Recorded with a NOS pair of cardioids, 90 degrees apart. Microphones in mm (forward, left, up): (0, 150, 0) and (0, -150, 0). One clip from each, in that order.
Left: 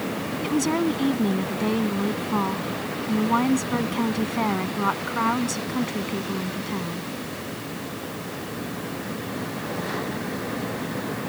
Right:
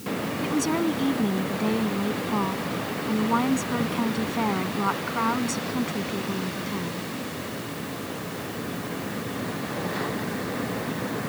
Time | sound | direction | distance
0.4 | a woman speaking | 15° left | ?